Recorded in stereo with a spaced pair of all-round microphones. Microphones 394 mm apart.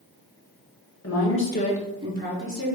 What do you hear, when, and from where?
1.0 s a woman speaking: 40° left (ahead or behind), 1.2 m; by 2.8 s 35° right (ahead or behind), 1.5 m